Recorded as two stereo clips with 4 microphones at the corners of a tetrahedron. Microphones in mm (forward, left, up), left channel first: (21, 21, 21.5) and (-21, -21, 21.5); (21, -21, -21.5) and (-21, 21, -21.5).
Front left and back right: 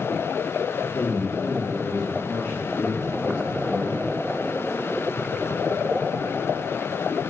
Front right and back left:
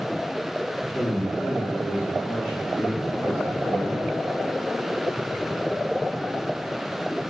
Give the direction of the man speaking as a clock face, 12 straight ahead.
10 o'clock.